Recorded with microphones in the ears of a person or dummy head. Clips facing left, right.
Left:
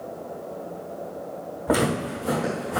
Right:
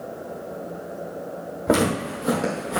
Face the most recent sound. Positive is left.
turn(degrees=-40)  # may be behind; listen again after turning